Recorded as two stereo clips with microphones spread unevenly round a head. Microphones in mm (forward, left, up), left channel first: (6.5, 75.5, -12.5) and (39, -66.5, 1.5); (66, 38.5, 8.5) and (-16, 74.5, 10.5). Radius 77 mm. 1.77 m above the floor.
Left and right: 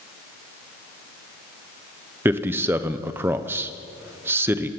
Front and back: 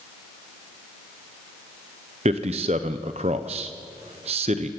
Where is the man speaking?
155° right, 1.0 m.